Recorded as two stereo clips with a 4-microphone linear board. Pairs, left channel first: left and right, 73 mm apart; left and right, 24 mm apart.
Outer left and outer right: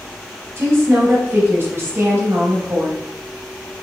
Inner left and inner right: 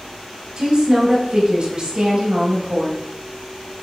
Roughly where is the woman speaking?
Right.